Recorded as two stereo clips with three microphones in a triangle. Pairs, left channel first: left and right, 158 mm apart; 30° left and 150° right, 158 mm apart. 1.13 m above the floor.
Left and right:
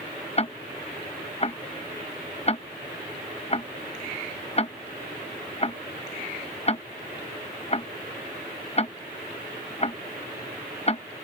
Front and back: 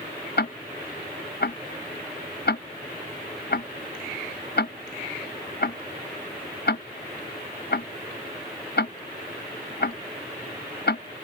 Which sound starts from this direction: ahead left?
Ticking, at 0.4 s.